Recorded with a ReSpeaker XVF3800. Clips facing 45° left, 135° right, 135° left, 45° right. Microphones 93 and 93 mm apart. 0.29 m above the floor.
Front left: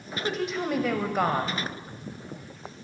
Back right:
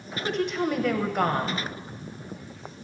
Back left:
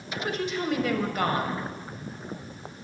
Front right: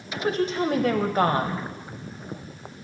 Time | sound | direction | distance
0.1 | a woman speaking | 40° right | 1.0 m